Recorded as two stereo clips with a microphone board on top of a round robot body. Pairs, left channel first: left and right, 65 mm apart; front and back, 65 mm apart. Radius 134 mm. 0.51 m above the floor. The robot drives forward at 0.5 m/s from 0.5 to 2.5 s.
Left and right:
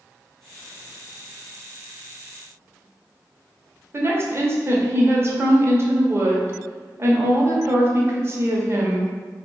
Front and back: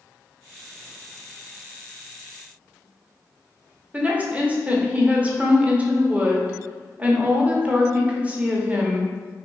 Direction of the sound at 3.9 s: 120° right.